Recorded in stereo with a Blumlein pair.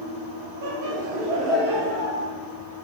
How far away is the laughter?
About 0.8 m.